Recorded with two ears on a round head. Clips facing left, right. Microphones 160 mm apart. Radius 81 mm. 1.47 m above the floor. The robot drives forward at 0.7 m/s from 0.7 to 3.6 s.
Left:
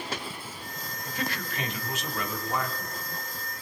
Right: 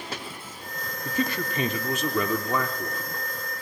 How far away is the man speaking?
About 3 m.